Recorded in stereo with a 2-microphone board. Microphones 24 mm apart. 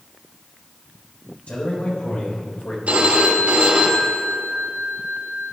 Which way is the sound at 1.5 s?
75° left (ahead or behind).